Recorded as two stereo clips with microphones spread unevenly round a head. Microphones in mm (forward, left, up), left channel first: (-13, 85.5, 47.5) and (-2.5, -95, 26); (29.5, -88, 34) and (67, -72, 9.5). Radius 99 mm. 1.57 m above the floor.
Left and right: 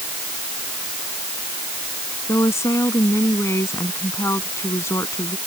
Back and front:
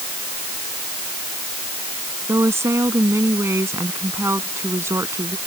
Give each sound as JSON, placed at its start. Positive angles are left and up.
{"t": 2.3, "sound": "a woman speaking", "azimuth_deg": 20}